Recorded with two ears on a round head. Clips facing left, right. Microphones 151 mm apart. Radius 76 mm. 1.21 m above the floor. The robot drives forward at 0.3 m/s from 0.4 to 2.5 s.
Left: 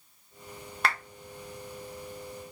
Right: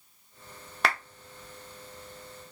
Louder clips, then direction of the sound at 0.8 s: Right 1 dB; 60° right (ahead or behind).